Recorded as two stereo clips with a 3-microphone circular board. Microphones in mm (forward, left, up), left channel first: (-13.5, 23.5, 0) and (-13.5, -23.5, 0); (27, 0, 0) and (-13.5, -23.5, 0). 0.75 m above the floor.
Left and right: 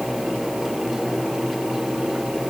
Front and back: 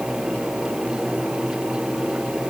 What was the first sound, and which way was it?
Only background noise.